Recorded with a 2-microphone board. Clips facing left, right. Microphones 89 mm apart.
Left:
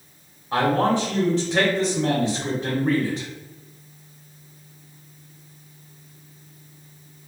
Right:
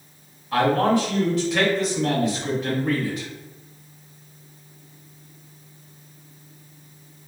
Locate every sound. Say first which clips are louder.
0.5 s a man speaking: right 1 dB; 30° left (ahead or behind), 1.2 m